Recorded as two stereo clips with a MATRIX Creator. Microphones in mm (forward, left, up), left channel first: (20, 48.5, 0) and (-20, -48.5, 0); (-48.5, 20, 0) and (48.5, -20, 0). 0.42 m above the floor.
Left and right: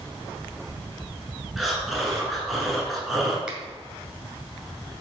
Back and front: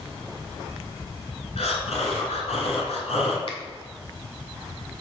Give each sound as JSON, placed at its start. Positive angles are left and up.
{"t": 1.6, "sound": "breathing", "azimuth_deg": 160, "distance_m": 1.9}
{"t": 3.5, "sound": "a finger snap", "azimuth_deg": 165, "distance_m": 1.8}